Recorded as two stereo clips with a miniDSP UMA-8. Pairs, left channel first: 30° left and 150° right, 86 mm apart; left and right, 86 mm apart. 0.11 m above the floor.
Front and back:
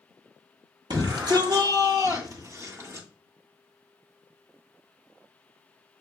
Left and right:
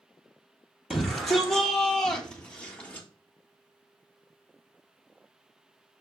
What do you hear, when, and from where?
0.9 s a shout: straight behind, 3 m; by 3.1 s 160° left, 2.5 m